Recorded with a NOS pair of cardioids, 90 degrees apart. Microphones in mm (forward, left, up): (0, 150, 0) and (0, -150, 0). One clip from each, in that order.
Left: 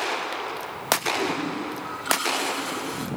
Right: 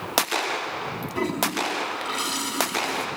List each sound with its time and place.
1.1 s a toilet flushing: 30° right, 4.5 m